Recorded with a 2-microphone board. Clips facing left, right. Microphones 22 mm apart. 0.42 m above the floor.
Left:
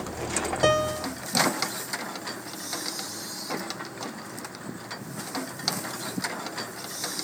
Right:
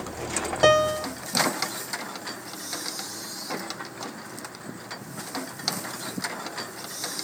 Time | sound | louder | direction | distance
0.6 | a piano | right 5 dB | 15° right (ahead or behind) | ?